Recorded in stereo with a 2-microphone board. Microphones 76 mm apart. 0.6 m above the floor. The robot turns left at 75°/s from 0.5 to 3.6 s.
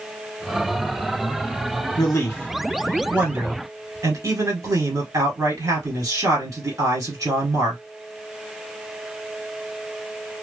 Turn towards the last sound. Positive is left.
turn(degrees=-60)